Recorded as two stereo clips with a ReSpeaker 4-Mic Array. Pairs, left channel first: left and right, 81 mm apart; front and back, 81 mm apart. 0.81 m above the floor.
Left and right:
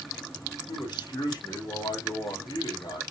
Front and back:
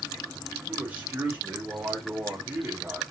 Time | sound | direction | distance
0.7 | a man speaking | 105° left | 3.5 m